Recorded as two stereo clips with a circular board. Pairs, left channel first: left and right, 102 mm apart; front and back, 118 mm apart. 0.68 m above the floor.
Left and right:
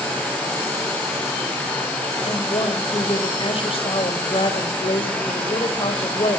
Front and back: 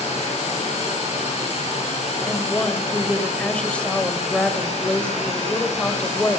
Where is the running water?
15° left, 9.5 m.